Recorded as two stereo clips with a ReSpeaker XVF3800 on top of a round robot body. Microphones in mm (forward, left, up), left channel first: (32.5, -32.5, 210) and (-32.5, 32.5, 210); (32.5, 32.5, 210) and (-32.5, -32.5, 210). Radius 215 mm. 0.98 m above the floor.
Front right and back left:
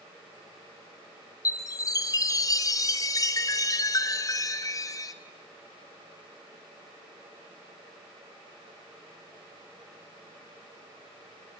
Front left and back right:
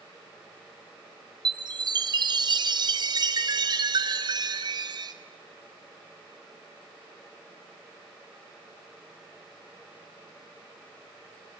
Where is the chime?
100° right, 1.3 m.